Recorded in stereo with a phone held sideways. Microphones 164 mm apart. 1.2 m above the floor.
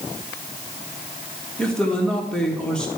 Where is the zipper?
I don't hear a zipper.